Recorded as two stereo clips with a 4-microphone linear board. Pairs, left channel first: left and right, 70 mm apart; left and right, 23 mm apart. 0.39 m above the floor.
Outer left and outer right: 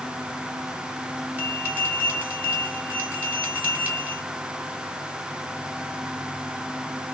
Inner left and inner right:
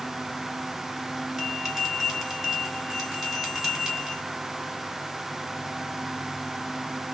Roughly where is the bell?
Right.